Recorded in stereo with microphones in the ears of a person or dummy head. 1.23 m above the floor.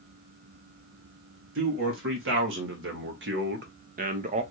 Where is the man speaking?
60° right (ahead or behind), 1.9 m; by 4.4 s 30° right (ahead or behind), 0.5 m.